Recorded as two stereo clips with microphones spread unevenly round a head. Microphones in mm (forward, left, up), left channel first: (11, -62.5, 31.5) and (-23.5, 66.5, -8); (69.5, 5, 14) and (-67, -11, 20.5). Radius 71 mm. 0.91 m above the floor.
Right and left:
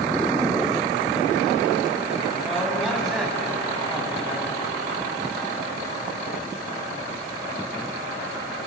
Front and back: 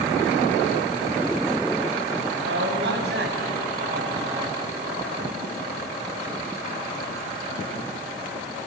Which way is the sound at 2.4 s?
165° right.